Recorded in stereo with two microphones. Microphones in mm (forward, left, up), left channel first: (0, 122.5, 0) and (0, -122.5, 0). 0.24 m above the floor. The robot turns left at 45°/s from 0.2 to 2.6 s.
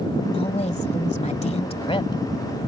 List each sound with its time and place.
0.3 s a woman speaking: 25° left (ahead or behind); by 2.2 s 15° left (ahead or behind)